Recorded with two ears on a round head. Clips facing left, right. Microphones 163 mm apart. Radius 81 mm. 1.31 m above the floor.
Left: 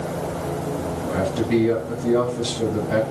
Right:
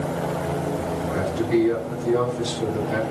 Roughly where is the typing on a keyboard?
No typing on a keyboard in this recording.